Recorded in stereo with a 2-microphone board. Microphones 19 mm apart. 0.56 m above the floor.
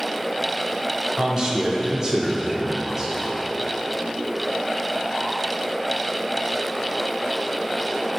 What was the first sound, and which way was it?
A man speaking, 30° right (ahead or behind).